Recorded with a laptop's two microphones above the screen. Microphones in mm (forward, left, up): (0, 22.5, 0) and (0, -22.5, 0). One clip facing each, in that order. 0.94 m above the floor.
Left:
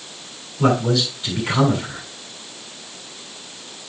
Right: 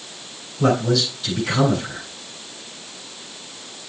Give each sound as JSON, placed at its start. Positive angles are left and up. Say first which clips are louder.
{"t": 0.6, "sound": "a man speaking", "louder": "even", "side_deg": 20, "distance_m": 7.0}